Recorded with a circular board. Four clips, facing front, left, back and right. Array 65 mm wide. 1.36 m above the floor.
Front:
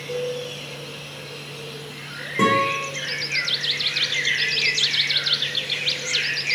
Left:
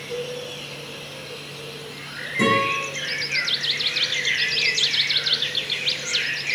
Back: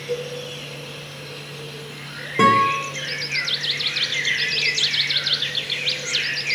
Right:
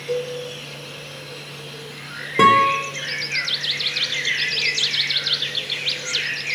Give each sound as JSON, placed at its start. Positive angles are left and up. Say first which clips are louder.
{"t": 0.1, "sound": "a cowbell", "louder": "right 5 dB, front 1 dB", "azimuth_deg": -100, "distance_m": 7.5}
{"t": 2.4, "sound": "a guitar", "louder": "right 7 dB, back 4 dB", "azimuth_deg": -105, "distance_m": 4.0}